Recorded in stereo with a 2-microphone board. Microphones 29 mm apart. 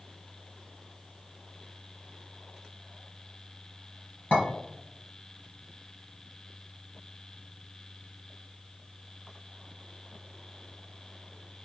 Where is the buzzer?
No buzzer in this recording.